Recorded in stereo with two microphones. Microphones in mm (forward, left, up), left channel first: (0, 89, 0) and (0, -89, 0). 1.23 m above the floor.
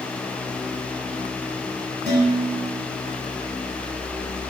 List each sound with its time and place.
2.1 s dishes clattering: 80° right, 4 m